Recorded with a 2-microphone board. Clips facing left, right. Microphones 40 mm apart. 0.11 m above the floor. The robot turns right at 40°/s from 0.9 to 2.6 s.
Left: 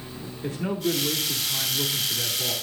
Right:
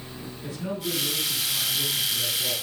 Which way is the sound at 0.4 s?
65° left.